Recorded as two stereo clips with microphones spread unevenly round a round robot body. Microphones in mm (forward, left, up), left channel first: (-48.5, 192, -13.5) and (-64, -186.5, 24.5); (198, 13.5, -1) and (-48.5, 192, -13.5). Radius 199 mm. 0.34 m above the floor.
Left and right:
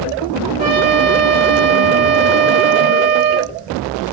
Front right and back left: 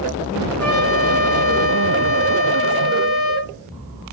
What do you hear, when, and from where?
0.6 s a trumpet: 70° right, 1.4 m